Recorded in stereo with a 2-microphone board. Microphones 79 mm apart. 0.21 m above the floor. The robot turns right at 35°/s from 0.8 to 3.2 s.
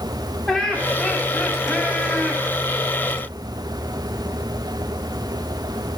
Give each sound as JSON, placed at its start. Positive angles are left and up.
{"t": 0.5, "sound": "laughter", "side_deg": 15, "distance_m": 1.3}